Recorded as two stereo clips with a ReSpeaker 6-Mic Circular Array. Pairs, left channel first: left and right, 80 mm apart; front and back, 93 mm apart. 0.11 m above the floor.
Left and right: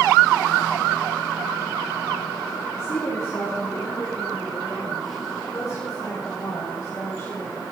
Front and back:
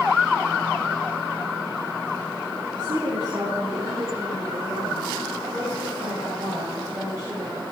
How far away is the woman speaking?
About 6 m.